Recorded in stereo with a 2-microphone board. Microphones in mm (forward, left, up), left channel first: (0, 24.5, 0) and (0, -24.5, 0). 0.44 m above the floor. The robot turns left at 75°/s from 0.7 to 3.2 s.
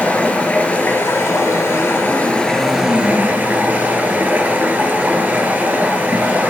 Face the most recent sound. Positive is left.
turn(degrees=-35)